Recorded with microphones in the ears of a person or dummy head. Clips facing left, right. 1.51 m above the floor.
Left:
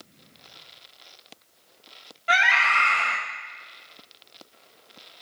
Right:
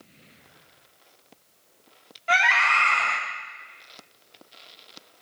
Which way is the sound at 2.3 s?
15° left (ahead or behind).